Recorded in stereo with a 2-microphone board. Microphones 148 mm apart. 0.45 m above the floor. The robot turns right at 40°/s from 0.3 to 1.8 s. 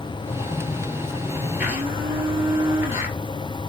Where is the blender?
10° right (ahead or behind), 2.5 m; by 3.2 s 20° right (ahead or behind), 2.5 m.